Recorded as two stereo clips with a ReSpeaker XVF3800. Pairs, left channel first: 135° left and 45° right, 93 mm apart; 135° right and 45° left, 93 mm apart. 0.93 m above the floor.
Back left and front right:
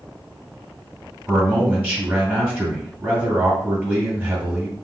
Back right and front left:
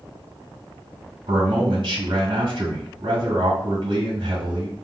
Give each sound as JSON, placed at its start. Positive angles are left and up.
{"t": 1.3, "sound": "a man speaking", "azimuth_deg": 25, "distance_m": 2.0}